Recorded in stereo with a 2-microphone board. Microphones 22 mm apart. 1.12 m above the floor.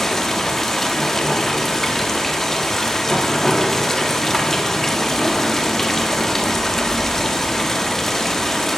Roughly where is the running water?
Centre.